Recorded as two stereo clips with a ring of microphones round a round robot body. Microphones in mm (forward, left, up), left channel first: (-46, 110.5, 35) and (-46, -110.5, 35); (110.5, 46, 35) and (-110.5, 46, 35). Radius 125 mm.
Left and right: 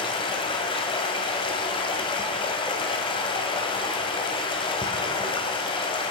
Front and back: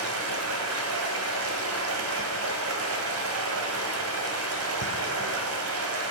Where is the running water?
160° left, 1.9 m.